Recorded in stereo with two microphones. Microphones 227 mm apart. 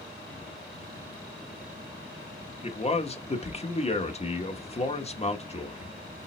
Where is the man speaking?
30° left (ahead or behind), 0.7 m.